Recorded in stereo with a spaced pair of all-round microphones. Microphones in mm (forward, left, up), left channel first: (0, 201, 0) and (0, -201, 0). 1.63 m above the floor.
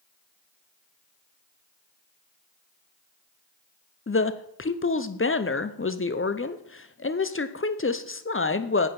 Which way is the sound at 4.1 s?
30° left (ahead or behind).